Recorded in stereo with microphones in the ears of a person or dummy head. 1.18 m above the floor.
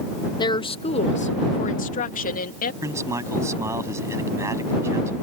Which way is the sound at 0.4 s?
20° left (ahead or behind).